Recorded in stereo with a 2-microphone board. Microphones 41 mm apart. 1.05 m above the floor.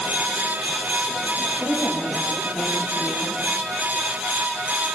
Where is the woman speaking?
45° left (ahead or behind), 8.5 m.